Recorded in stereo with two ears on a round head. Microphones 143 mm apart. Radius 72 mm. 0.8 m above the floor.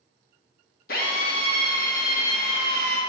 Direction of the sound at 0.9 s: 60° left (ahead or behind).